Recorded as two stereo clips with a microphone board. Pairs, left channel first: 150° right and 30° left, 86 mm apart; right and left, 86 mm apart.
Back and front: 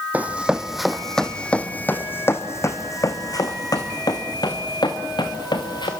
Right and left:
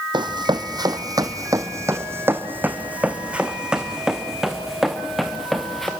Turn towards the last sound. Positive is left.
turn(degrees=-175)